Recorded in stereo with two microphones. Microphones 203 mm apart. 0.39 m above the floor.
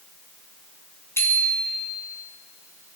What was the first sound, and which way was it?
A bicycle bell, 10° left (ahead or behind).